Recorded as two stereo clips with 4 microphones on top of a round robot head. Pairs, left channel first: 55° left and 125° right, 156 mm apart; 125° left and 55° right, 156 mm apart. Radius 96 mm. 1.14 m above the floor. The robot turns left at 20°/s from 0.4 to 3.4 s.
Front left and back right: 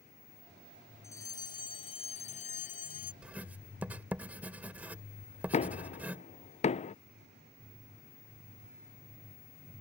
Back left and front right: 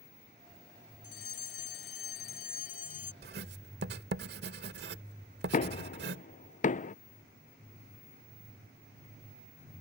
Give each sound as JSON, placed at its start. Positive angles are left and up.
{"t": 1.0, "sound": "a fire alarm", "azimuth_deg": 125}
{"t": 3.2, "sound": "writing", "azimuth_deg": -45}
{"t": 5.5, "sound": "knocking", "azimuth_deg": 95}